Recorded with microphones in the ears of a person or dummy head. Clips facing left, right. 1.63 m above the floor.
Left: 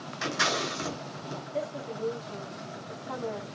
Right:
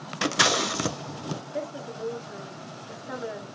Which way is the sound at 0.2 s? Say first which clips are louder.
Right 5 dB; 75° right (ahead or behind).